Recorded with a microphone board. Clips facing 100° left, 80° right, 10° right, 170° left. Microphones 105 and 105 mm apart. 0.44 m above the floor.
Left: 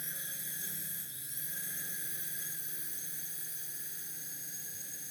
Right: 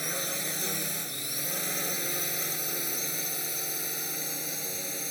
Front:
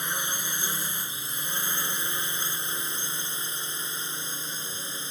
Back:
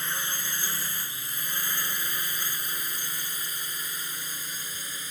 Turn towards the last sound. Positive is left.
turn(degrees=-75)